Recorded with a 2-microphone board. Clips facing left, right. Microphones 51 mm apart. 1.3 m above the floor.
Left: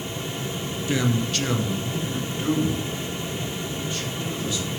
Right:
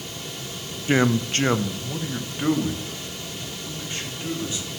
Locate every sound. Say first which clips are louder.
0.9 s a man speaking: right 4 dB; 35° right (ahead or behind), 0.5 m; by 4.7 s 30° right (ahead or behind), 3 m